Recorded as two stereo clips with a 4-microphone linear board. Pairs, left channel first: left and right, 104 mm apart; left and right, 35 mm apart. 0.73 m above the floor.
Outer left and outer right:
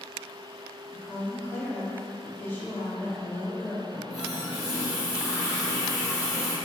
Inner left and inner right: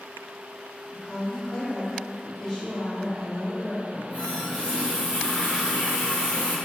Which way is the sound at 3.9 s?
35° left (ahead or behind).